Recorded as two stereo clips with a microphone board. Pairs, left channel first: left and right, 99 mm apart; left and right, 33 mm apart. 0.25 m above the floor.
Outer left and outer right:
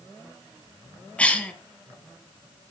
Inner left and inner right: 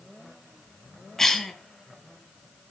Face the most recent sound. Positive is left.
turn(degrees=10)  # may be behind; listen again after turning